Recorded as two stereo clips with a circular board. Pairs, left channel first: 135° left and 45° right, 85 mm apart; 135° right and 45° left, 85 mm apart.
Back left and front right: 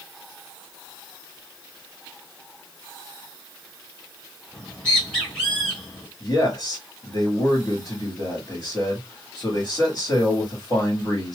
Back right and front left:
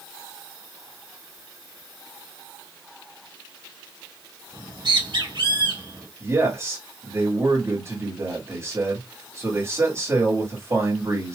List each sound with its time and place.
4.5 s a bird: 55° left, 3.5 m
6.2 s a man speaking: 85° left, 2 m